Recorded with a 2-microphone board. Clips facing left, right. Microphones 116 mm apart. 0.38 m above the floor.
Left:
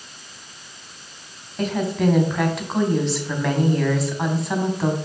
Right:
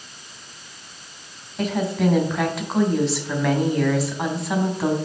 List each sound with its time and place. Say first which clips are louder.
1.6 s a woman speaking: even; centre (ahead or behind), 3 m